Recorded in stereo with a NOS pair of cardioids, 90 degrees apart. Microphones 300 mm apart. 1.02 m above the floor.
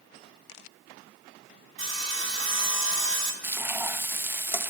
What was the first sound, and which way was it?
Sawing, 45° right.